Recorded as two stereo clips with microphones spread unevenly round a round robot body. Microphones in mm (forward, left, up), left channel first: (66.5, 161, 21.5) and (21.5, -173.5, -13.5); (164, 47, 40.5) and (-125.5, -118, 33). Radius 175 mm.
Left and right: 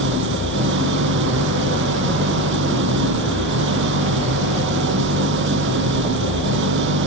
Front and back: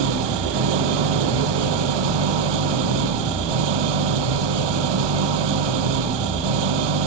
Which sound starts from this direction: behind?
An engine running, at 0.0 s.